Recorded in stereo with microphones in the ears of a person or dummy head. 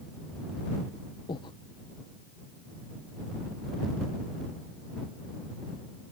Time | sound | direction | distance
1.3 | breathing | 25° left (ahead or behind) | ?